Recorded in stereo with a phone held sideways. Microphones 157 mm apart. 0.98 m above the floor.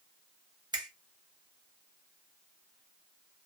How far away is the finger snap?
About 1.0 m.